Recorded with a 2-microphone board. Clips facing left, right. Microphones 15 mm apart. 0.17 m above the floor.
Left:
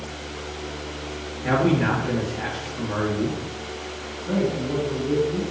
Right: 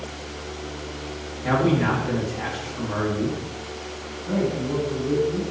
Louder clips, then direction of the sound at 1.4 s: Even; 30° right (ahead or behind).